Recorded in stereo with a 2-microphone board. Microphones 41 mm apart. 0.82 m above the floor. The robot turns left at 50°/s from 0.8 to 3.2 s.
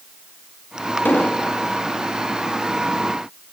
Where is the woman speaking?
No woman speaking in this recording.